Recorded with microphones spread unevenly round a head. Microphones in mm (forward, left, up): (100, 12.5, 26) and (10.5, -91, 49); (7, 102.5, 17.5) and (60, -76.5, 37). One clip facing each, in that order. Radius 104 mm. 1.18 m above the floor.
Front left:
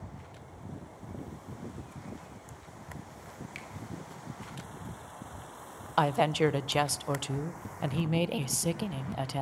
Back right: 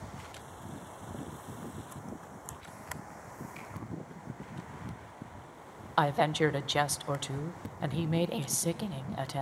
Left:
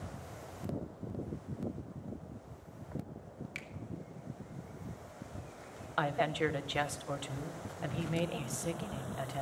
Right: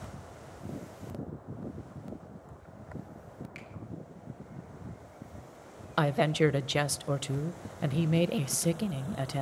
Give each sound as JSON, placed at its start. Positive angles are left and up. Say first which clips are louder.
{"t": 3.5, "sound": "a finger snap", "louder": "even, right 2 dB", "azimuth_deg": 55, "distance_m": 2.0}
{"t": 6.0, "sound": "a woman speaking", "louder": "front left 1 dB, right 6 dB", "azimuth_deg": -30, "distance_m": 0.6}